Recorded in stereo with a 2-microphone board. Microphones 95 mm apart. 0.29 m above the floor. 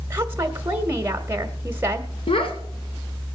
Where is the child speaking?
70° left (ahead or behind), 3.5 m.